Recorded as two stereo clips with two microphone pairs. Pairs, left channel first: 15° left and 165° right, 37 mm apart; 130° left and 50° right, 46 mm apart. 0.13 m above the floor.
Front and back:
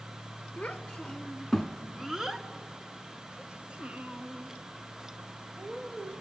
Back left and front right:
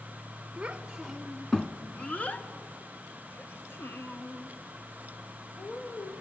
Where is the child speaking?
15° right, 0.9 m; by 6.1 s 145° left, 2.5 m.